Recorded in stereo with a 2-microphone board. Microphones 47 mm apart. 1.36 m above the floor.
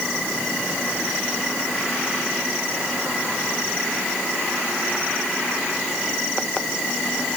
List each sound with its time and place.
Only background noise.